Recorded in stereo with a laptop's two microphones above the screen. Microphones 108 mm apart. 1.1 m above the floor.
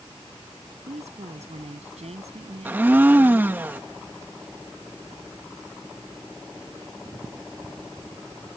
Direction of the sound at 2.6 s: 15° right (ahead or behind).